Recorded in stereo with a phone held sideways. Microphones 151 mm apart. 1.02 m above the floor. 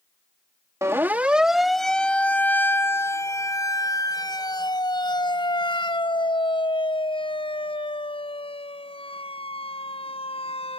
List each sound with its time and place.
0.8 s a siren: 20° right (ahead or behind); by 10.8 s 40° left (ahead or behind)